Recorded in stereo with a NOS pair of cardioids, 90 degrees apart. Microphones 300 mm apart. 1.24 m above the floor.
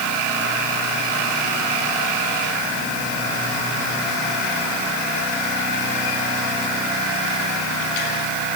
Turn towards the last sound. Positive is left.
No sound to turn to.